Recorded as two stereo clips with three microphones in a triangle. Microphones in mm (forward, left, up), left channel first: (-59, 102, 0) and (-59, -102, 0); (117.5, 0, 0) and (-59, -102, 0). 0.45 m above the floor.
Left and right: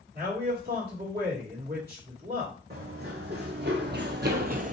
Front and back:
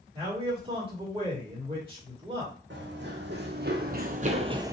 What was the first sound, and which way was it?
A man speaking, 95° right.